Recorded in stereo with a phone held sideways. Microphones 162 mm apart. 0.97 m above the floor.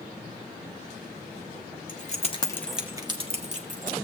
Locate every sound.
1.9 s keys jangling: 55° left (ahead or behind), 1.1 m; by 3.9 s 55° right (ahead or behind), 1.6 m